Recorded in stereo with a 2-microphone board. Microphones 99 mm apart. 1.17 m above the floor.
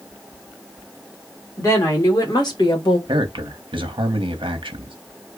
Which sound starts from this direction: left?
A woman speaking, at 1.6 s.